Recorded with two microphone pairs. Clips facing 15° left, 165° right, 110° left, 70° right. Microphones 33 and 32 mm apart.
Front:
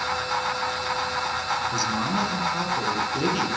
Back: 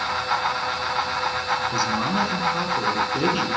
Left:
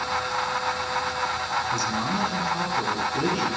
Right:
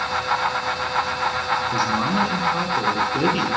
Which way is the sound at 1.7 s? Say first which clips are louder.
Back 2 dB, right 5 dB; 100° right.